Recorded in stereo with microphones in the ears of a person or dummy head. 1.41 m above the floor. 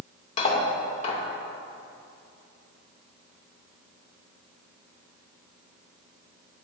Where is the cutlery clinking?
45° left (ahead or behind), 2.5 m.